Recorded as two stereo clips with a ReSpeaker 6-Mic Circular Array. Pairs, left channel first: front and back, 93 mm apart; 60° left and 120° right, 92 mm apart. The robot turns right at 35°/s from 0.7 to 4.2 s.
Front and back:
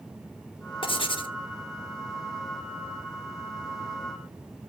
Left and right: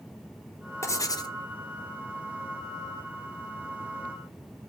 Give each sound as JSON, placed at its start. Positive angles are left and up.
{"t": 0.8, "sound": "writing", "azimuth_deg": 0, "distance_m": 1.0}